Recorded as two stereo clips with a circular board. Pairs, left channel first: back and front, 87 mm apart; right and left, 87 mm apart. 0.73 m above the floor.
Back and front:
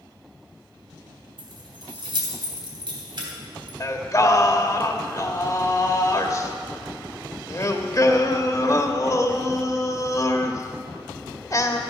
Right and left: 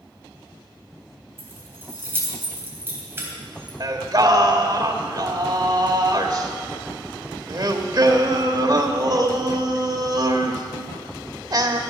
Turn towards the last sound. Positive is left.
turn(degrees=130)